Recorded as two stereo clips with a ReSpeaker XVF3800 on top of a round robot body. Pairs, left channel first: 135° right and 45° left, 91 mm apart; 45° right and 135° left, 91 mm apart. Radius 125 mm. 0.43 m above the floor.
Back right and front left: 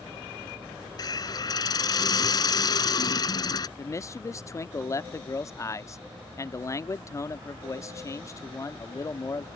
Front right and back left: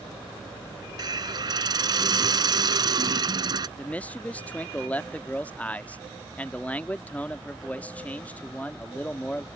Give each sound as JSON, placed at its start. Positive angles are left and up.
{"t": 1.0, "sound": "a hiss", "azimuth_deg": 180}
{"t": 3.8, "sound": "a man speaking", "azimuth_deg": -110}